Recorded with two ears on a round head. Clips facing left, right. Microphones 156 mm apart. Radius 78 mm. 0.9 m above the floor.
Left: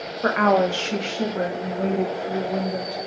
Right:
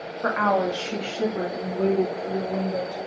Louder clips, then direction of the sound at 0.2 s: Left 4 dB; 40° left (ahead or behind).